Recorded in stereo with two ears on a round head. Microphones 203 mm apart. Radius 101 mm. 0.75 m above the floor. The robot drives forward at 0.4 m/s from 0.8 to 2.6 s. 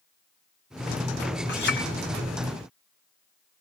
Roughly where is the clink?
Left.